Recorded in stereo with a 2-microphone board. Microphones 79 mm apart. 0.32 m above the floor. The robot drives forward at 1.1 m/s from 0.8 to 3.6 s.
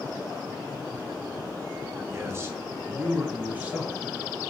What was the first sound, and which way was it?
A man speaking, 35° right (ahead or behind).